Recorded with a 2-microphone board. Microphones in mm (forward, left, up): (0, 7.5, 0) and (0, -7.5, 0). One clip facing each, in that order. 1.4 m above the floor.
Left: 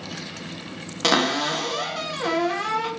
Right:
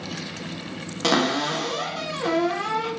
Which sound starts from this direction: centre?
A cupboard door, at 1.0 s.